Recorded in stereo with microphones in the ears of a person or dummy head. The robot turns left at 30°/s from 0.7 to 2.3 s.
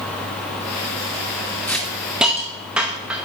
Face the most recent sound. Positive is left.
turn(degrees=-5)  # may be behind; listen again after turning